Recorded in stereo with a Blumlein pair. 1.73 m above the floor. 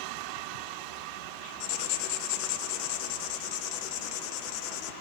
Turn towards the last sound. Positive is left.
turn(degrees=45)